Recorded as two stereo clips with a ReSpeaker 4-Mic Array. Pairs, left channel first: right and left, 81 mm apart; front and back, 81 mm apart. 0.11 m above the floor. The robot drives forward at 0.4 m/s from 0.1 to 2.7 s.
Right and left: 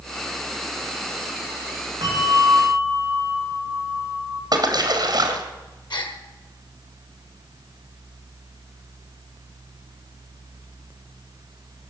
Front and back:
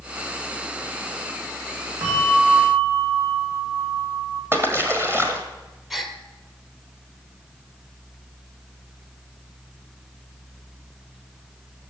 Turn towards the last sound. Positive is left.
turn(degrees=-90)